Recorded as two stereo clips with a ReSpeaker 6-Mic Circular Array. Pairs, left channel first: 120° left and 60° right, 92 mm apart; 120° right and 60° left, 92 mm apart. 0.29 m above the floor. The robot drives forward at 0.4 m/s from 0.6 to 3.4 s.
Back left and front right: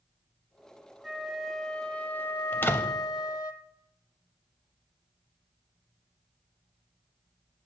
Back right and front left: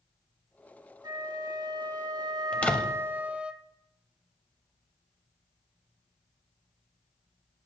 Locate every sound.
1.0 s a flute: 25° left, 0.8 m; by 3.5 s 130° left, 0.5 m
2.5 s a door slam: 170° left, 0.7 m; by 3.0 s 175° left, 0.8 m